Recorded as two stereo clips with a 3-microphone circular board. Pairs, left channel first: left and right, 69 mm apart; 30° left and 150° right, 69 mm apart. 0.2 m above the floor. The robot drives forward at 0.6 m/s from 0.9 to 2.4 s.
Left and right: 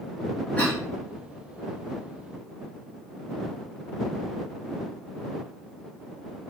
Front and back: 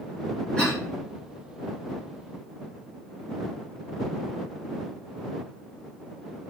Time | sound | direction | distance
0.6 | a cough | 80° left | 1.1 m